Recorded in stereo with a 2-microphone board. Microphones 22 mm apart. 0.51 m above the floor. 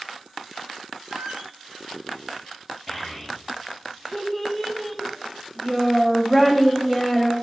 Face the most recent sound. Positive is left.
turn(degrees=0)  # may be behind; listen again after turning